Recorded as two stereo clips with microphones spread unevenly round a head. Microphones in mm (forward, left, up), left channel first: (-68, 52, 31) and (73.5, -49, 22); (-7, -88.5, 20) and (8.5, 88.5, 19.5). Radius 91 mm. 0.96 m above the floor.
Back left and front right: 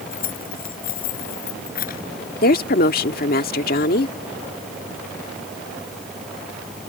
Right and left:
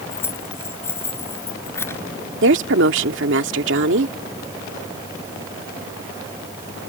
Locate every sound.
0.1 s keys jangling: 175° right
2.4 s a woman speaking: 105° left